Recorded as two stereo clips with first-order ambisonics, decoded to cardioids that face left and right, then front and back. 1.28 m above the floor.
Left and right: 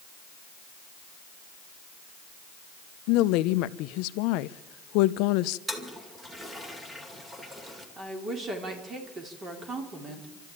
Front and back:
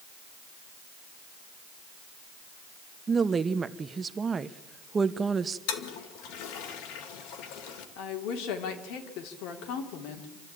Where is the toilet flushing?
10° right, 2.5 m.